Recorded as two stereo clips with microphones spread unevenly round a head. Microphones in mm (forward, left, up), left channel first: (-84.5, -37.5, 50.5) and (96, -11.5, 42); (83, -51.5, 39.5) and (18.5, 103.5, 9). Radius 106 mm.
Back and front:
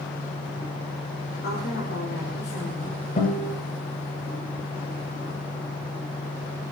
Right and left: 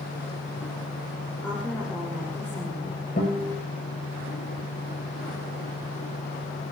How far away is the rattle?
No rattle in this recording.